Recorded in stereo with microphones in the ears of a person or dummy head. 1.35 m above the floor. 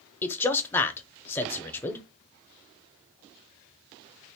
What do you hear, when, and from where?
0.2 s a man speaking: 10° left (ahead or behind), 0.7 m